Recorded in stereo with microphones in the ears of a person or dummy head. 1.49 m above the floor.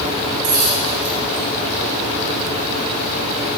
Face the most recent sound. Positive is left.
turn(degrees=-45)  # may be behind; listen again after turning